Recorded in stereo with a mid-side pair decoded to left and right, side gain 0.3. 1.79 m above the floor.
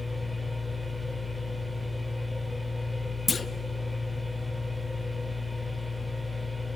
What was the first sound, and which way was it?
A machine running, 5° right.